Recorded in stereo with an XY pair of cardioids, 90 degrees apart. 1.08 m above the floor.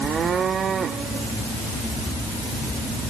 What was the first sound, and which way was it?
Only background noise.